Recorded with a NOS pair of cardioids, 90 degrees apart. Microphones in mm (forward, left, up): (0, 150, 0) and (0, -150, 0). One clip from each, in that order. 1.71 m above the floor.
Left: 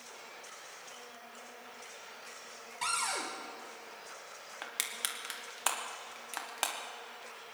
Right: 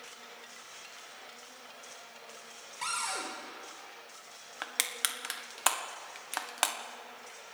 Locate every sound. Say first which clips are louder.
2.8 s a cupboard door: left 1 dB; 10° left, 4.5 m
4.6 s crushing: right 4 dB; 30° right, 1.5 m